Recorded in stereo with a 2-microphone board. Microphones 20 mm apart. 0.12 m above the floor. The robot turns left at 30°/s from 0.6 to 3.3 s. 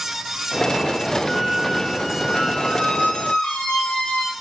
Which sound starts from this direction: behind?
A squeak, at 1.3 s.